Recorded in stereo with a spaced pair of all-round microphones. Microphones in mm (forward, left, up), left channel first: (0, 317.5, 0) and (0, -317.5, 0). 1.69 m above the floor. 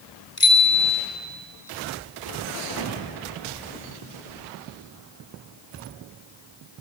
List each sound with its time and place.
0.4 s a bicycle bell: 50° left (ahead or behind), 4.5 m